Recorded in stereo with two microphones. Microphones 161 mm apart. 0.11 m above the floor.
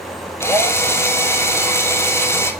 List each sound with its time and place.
0.4 s a drill: 15° left (ahead or behind), 1.9 m